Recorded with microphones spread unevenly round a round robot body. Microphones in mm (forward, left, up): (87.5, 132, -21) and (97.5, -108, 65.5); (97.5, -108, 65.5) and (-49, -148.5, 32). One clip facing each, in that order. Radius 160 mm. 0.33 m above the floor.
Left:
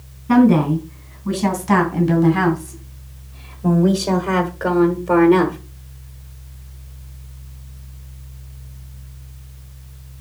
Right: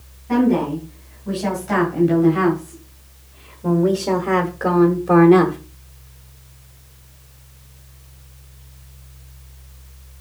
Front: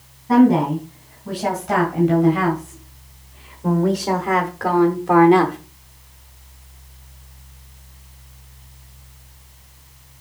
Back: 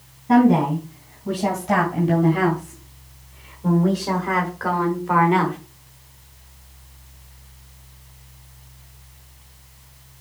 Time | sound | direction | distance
0.3 | a woman speaking | 125° left | 3.5 m